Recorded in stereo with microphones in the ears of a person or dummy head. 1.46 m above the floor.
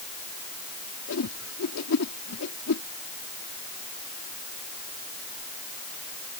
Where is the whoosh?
85° left.